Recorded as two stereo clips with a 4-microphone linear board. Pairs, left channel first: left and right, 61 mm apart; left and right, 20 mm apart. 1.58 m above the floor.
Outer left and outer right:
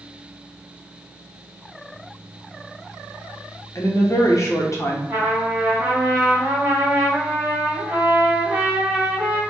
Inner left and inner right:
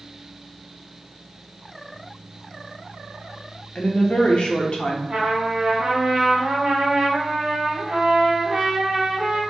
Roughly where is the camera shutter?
I don't hear a camera shutter.